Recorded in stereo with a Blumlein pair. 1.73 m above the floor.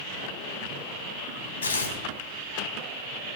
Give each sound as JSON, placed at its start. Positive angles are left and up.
{"t": 1.6, "sound": "tearing paper", "azimuth_deg": 65, "distance_m": 2.5}